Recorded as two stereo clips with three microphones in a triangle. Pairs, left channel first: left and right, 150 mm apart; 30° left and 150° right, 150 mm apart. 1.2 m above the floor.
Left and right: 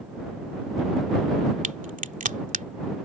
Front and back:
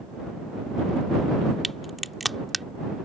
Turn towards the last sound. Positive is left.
turn(degrees=-60)